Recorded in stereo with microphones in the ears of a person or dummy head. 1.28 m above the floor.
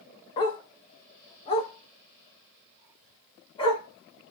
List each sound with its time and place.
0.4 s a dog barking: 20° left (ahead or behind), 0.7 m; by 4.3 s 30° left (ahead or behind), 2.5 m